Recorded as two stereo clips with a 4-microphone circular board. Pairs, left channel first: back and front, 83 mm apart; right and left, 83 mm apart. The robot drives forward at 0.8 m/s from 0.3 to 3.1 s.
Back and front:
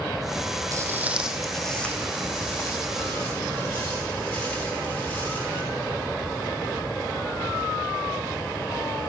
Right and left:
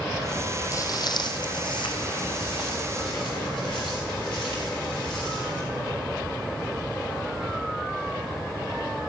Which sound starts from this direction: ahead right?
Footsteps, at 0.7 s.